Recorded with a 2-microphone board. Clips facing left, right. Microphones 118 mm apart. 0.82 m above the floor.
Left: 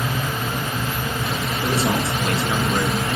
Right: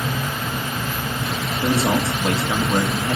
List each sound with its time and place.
1.6 s a man speaking: 30° right (ahead or behind), 1.1 m